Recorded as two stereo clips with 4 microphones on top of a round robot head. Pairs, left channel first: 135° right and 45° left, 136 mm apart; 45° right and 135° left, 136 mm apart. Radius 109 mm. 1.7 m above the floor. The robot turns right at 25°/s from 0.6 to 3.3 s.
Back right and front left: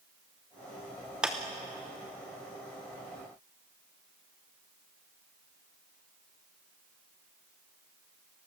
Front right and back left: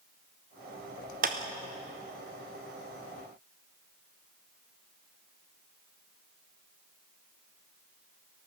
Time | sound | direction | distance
1.2 | a clap | 130° left | 0.8 m